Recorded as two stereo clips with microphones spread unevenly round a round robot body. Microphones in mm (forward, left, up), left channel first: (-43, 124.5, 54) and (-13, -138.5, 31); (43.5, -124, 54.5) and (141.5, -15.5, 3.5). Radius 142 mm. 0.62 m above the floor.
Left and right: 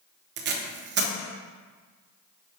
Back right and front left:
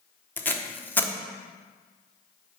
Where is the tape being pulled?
45° right, 1.1 m.